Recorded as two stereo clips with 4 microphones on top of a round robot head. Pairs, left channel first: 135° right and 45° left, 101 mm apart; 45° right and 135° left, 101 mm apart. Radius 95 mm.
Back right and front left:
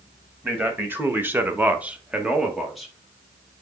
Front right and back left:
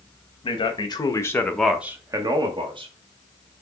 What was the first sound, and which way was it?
A man speaking, 25° right.